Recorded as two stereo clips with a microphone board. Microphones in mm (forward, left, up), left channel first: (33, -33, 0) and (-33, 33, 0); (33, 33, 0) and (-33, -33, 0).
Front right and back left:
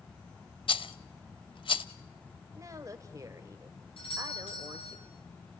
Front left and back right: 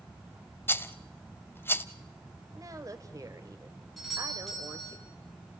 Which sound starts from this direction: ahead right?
A doorbell, at 4.0 s.